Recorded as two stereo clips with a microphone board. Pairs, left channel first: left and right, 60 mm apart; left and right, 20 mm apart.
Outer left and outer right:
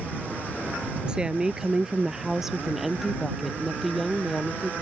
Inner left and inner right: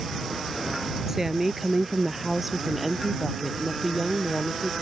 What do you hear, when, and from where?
1.1 s a woman speaking: 15° right (ahead or behind); by 4.7 s 5° left (ahead or behind)